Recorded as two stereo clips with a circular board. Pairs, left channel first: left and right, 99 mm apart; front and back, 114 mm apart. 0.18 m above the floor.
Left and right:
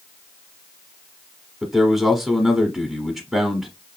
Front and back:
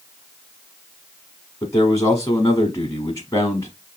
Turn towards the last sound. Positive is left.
turn(degrees=-5)